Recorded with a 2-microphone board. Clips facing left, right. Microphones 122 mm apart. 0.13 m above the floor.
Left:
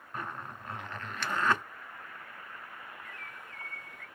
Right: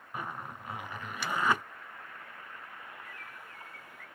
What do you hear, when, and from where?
0.1 s a zipper: 10° right (ahead or behind), 0.5 m
3.0 s a bird: 5° right (ahead or behind), 1.1 m